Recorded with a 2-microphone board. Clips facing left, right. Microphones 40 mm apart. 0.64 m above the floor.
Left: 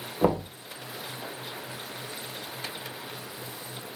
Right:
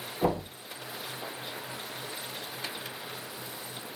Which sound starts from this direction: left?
Knocking, at 0.2 s.